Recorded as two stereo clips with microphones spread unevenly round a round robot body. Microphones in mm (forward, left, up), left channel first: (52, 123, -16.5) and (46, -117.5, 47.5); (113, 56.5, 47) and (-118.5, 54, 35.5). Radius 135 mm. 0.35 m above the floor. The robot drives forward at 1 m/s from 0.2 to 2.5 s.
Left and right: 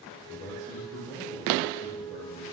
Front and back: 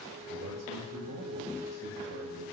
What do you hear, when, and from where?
0.3 s a man speaking: 165° left, 6.5 m; by 2.4 s 170° left, 9 m